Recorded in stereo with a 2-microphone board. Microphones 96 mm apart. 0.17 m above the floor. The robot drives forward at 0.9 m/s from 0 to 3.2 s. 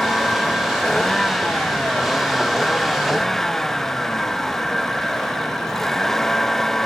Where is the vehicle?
5° left (ahead or behind).